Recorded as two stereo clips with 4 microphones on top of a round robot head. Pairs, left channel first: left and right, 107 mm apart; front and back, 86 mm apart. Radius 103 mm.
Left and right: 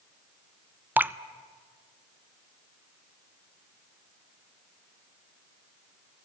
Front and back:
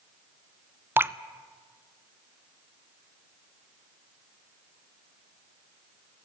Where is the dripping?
145° right, 0.6 m.